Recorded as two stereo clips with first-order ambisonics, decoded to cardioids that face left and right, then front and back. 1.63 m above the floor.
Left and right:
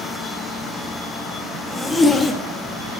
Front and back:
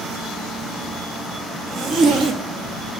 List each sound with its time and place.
1.7 s a zipper: 160° left, 1.2 m